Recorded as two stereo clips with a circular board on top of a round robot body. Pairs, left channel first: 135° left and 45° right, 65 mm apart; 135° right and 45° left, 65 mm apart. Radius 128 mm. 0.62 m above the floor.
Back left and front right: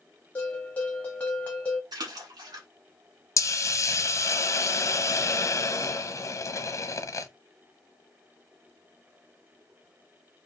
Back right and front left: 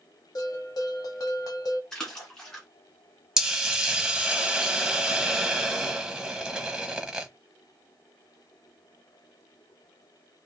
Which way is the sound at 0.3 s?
155° right.